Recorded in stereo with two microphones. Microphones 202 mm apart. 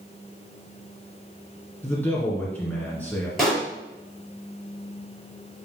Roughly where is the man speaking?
Centre.